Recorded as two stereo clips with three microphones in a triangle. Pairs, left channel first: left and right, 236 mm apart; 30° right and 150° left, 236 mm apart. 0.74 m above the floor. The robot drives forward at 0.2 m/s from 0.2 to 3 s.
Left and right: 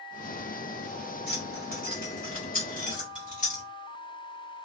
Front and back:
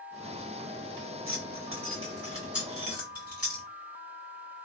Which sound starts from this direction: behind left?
Keys jangling, at 1.3 s.